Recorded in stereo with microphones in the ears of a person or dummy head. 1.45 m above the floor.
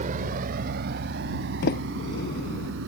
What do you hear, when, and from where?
0.0 s a vehicle: 35° right (ahead or behind); by 2.9 s 60° right (ahead or behind)
1.6 s a sliding door: 60° left (ahead or behind)